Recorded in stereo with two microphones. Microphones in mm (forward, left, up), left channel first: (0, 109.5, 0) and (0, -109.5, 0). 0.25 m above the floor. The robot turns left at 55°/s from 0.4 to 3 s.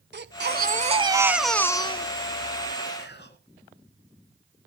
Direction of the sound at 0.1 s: 120° right.